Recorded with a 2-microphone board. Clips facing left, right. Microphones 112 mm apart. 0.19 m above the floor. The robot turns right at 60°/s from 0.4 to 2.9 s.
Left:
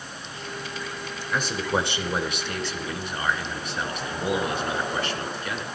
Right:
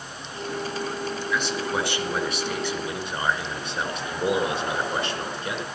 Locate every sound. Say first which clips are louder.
1.3 s a man speaking: left 3 dB; 120° left, 2.5 m; by 5.6 s 145° right, 2.5 m